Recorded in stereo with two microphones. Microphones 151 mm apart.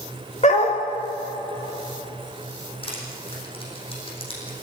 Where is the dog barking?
50° left (ahead or behind), 3.5 m.